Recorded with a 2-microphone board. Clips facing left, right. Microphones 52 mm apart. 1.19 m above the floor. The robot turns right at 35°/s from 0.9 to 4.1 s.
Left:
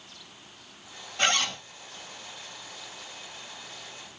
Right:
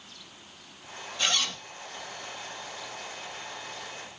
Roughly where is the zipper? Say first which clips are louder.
Left 4 dB; left.